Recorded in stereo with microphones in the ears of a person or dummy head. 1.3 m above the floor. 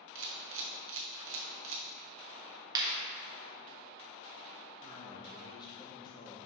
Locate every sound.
0.1 s a camera shutter: 65° right (ahead or behind), 0.9 m
2.8 s a clap: 20° right (ahead or behind), 1.4 m
4.8 s a man speaking: 25° left (ahead or behind), 1.4 m